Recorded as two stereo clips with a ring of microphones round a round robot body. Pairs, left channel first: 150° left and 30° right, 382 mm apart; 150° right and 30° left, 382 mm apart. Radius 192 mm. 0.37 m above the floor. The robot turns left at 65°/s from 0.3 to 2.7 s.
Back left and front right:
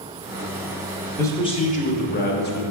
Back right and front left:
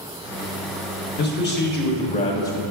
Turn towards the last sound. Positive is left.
turn(degrees=125)